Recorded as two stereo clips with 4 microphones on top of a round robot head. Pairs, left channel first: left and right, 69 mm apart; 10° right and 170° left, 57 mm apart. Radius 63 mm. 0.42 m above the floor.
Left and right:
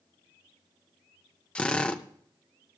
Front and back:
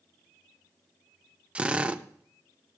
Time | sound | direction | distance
1.6 | a drill | 135° left | 0.8 m